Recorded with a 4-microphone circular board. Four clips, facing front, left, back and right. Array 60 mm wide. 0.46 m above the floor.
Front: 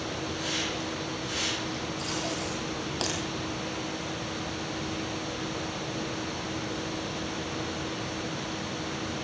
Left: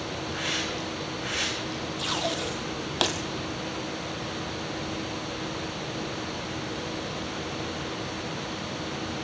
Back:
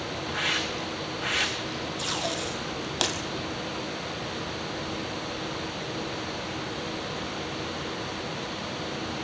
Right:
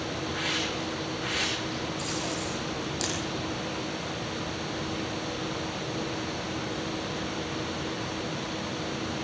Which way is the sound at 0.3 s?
Straight behind.